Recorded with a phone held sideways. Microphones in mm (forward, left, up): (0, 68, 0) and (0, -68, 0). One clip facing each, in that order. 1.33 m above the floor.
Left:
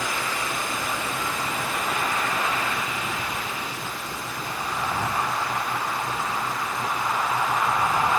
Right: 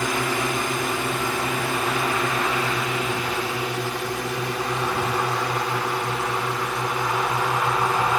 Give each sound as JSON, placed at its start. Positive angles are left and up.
{"t": 0.0, "sound": "a drone", "side_deg": -60}